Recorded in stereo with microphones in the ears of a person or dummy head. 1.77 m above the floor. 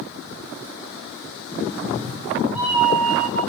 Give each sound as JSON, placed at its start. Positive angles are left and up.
{"t": 1.7, "sound": "a cat meowing", "side_deg": -30, "distance_m": 1.7}